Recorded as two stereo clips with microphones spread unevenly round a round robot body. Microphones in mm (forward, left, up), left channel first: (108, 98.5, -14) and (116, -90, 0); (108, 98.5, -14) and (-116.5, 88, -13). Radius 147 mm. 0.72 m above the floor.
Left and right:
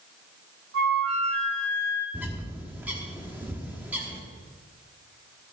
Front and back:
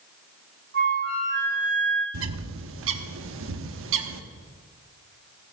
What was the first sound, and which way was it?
A flute, 120° right.